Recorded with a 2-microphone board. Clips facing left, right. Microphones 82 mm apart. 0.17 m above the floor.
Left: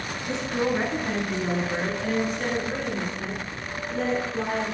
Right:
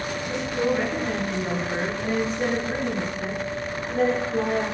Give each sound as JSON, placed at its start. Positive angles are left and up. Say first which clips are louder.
{"t": 0.3, "sound": "a woman speaking", "louder": "right 1 dB", "side_deg": 30, "distance_m": 2.5}